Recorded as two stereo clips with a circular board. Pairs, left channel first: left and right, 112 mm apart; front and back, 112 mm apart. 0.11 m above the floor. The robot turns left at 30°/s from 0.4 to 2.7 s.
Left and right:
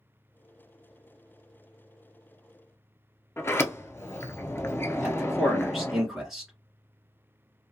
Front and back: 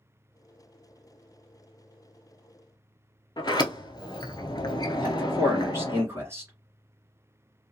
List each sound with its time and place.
3.4 s a sliding door: 30° left, 0.5 m
5.0 s a man speaking: 170° right, 1.7 m